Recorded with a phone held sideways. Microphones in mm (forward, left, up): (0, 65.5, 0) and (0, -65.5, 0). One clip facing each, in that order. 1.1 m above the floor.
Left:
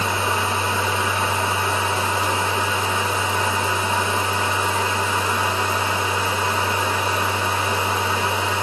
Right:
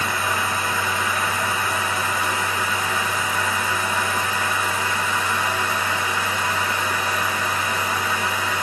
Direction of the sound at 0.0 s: 25° left (ahead or behind).